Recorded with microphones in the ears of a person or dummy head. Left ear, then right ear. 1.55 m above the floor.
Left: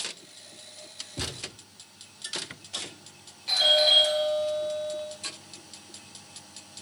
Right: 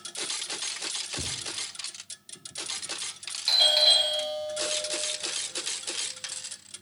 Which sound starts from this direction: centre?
A thud, at 1.2 s.